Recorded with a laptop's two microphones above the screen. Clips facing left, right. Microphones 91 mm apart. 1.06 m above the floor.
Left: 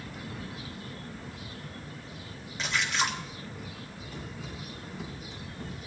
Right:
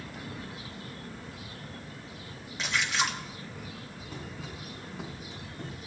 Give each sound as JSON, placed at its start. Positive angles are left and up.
{"t": 2.6, "sound": "a splash", "side_deg": 0, "distance_m": 1.3}
{"t": 4.1, "sound": "running footsteps", "side_deg": -75, "distance_m": 6.5}